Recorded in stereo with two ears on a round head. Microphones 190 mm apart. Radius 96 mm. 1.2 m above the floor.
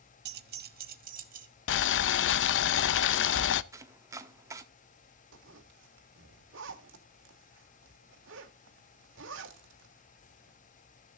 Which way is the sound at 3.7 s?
15° right (ahead or behind).